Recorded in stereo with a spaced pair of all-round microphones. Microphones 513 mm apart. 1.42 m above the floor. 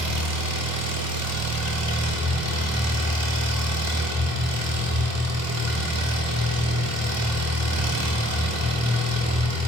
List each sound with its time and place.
0.0 s an engine running: 30° right (ahead or behind), 0.7 m